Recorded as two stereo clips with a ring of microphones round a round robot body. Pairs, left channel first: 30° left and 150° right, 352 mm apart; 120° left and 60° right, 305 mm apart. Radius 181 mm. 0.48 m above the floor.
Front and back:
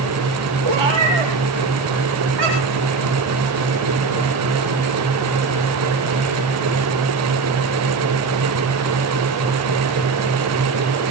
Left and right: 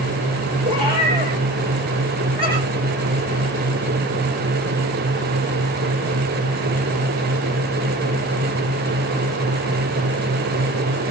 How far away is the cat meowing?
About 7 m.